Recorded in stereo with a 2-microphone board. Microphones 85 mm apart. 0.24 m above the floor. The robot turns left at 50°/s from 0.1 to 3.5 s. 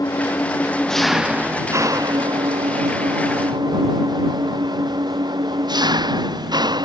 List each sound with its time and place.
0.0 s an engine running: 50° left; by 6.8 s 120° right